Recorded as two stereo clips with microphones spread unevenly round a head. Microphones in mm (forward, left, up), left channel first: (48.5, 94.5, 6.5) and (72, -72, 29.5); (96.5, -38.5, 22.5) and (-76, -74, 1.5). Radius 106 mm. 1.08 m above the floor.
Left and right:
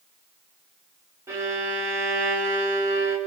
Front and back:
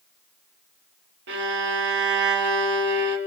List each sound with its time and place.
1.3 s a violin: 160° right, 1.7 m